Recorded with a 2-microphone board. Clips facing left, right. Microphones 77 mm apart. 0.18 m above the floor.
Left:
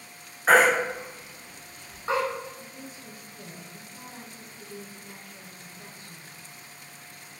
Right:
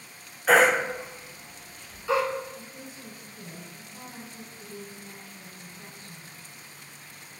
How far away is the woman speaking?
About 1.3 m.